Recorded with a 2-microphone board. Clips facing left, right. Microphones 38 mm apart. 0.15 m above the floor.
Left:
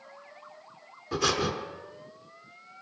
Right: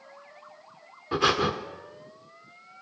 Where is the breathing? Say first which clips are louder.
Right 4 dB; 25° right (ahead or behind), 0.8 m.